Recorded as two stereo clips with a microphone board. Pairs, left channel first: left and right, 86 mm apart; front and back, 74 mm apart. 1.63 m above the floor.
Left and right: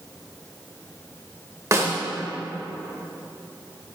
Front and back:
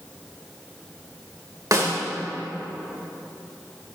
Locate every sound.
1.7 s a snare drum: 140° right, 2.5 m